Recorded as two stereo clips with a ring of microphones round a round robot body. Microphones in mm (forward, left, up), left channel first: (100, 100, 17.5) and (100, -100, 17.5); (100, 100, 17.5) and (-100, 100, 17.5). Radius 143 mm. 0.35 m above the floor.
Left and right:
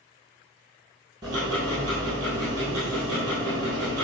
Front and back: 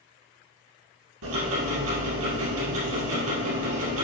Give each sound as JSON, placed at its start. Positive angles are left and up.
{"t": 1.2, "sound": "ticking", "azimuth_deg": -165, "distance_m": 2.0}